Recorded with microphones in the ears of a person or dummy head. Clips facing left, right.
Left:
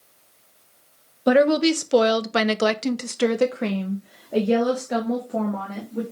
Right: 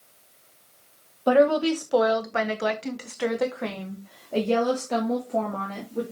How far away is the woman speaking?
About 1.3 m.